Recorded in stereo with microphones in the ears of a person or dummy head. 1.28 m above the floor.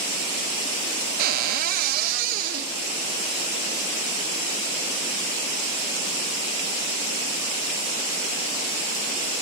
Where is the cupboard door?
50° right (ahead or behind), 1.4 m.